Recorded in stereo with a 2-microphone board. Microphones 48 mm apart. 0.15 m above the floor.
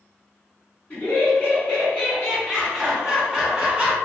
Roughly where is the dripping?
No dripping in this recording.